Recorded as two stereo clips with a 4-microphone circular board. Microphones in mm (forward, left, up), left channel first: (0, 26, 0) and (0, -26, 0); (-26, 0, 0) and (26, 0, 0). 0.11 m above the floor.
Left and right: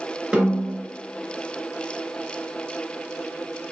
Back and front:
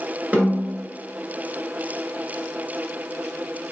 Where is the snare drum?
20° right, 1.8 m.